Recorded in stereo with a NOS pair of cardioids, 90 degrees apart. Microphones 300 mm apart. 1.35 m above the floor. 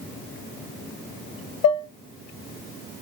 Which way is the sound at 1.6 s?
65° left.